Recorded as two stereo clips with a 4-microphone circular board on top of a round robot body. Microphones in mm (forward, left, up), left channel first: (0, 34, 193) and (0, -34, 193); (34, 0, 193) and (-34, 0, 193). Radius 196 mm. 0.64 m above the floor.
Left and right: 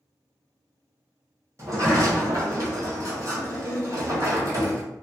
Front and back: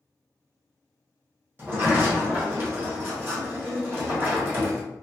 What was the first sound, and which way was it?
A sliding door, 125° right.